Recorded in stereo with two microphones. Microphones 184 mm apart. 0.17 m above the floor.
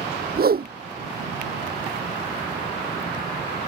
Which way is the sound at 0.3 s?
55° right (ahead or behind).